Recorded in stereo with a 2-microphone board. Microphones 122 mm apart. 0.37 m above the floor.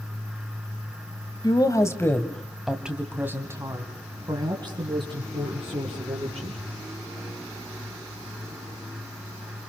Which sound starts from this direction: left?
A woman speaking, at 1.4 s.